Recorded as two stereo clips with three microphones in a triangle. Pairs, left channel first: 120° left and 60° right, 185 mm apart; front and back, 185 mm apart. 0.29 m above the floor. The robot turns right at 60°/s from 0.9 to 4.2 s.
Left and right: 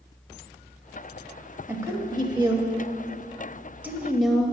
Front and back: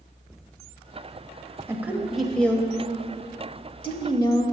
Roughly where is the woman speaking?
Behind right.